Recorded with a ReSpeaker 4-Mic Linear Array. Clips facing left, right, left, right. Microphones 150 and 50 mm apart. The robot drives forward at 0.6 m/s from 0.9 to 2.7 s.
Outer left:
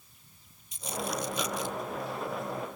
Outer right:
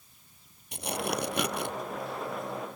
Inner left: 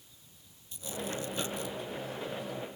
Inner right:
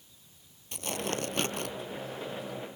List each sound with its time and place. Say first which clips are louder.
0.7 s tearing paper: outer right 2 dB, inner right 4 dB; 80° right; by 1.7 s 70° right (ahead or behind)